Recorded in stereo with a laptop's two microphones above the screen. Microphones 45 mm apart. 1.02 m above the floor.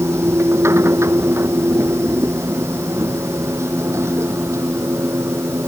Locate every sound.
0.0 s a machine running: 85° right